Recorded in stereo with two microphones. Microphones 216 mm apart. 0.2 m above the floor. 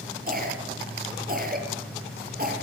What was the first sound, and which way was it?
A cough, 45° right (ahead or behind).